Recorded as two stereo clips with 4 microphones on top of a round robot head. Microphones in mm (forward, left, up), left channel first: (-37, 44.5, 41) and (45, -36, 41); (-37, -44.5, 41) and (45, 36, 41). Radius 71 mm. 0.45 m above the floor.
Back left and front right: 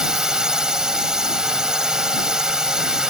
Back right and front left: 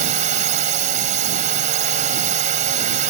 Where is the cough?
I don't hear a cough.